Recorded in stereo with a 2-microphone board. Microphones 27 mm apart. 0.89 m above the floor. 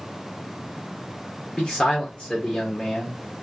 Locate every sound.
1.6 s a man speaking: 35° left (ahead or behind), 1.2 m